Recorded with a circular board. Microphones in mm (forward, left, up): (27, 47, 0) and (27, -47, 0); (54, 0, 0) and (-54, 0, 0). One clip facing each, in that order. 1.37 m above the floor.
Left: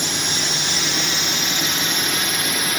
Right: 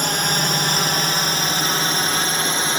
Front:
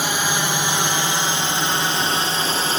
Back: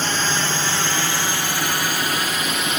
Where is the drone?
75° right; by 2.8 s 40° right.